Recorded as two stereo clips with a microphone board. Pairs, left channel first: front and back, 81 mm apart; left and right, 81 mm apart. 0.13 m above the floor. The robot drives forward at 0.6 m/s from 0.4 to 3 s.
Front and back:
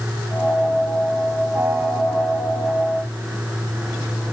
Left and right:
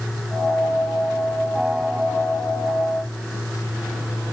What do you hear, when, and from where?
Only background noise.